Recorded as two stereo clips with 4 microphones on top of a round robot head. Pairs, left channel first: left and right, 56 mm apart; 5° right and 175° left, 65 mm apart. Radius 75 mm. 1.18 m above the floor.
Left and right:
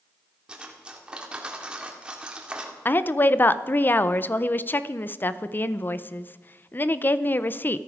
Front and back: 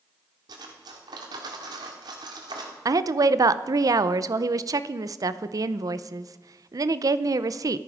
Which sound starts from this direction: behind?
Cutlery clinking, at 0.5 s.